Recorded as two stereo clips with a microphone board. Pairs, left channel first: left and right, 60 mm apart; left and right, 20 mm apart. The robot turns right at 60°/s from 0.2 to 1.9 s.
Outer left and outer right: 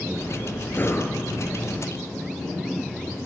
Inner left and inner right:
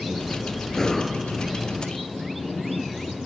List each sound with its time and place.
0.7 s breathing: 30° left (ahead or behind), 2.5 m; by 1.2 s 55° left (ahead or behind), 2.5 m